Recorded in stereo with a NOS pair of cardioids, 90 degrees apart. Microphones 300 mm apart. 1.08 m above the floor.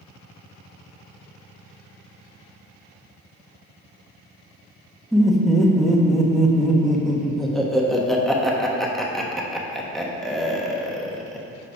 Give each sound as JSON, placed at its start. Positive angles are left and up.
{"t": 5.1, "sound": "laughter", "azimuth_deg": 0, "distance_m": 1.2}